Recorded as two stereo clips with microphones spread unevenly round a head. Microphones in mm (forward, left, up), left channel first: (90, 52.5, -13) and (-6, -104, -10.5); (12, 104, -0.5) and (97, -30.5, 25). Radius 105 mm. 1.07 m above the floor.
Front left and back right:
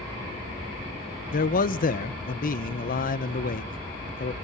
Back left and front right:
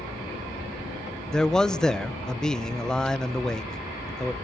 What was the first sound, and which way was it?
A man speaking, 45° left.